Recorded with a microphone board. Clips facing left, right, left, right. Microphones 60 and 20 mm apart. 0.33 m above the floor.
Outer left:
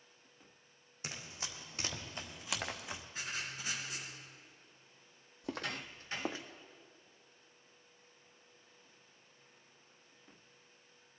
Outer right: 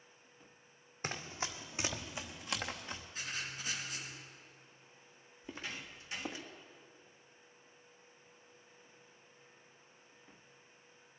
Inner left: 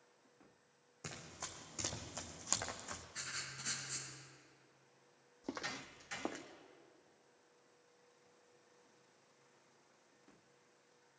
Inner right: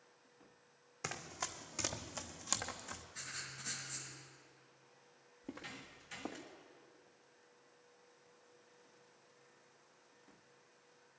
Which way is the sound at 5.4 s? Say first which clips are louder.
Outer left 5 dB, inner left 5 dB; 75° left (ahead or behind).